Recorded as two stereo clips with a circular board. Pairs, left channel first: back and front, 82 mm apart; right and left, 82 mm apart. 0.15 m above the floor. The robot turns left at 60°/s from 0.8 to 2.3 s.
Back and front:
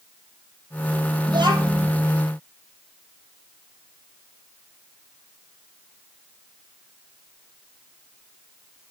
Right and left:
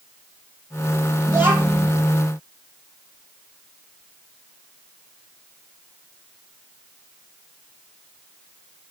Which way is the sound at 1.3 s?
35° left.